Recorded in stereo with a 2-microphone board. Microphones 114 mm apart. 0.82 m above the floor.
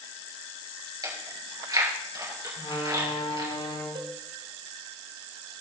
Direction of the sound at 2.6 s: 55° left (ahead or behind).